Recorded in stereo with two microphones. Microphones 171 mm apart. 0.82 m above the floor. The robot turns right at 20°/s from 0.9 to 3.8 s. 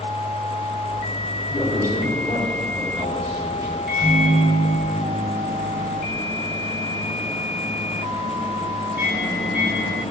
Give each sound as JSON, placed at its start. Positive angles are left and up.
{"t": 1.5, "sound": "a man speaking", "azimuth_deg": 160, "distance_m": 3.5}
{"t": 3.9, "sound": "a microwave", "side_deg": -60, "distance_m": 3.5}